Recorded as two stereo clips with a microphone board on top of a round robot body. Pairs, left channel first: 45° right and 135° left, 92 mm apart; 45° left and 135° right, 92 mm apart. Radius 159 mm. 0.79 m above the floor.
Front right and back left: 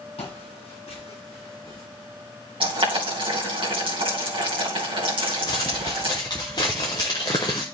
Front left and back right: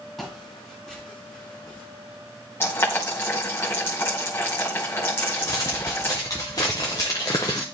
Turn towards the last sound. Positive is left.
turn(degrees=-5)